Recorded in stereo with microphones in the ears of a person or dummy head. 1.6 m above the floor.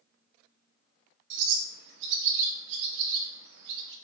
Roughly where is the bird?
Right.